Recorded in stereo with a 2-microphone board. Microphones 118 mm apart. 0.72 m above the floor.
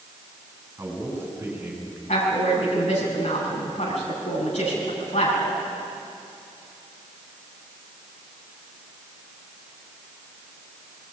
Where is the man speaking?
25° right (ahead or behind), 6 m; by 2.0 s 15° right (ahead or behind), 6.5 m.